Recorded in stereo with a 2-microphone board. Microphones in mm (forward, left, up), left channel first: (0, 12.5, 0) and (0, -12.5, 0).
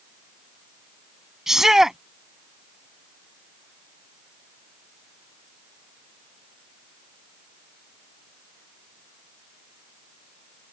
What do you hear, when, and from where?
1.5 s a shout: 20° right (ahead or behind)